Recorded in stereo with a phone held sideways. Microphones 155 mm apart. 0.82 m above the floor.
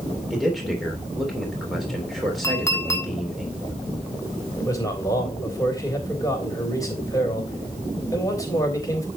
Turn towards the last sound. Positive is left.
turn(degrees=20)  # may be behind; listen again after turning